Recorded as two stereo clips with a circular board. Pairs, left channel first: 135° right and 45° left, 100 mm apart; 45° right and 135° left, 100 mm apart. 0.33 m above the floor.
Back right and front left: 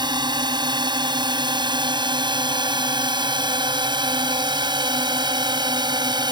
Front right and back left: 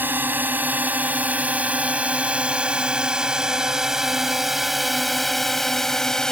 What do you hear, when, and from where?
0.0 s a drone: 70° left; by 6.3 s 35° left